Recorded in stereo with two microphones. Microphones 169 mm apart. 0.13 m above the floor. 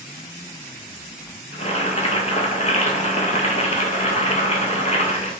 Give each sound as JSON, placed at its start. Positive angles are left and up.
{"t": 1.5, "sound": "boiling", "side_deg": 40, "distance_m": 0.7}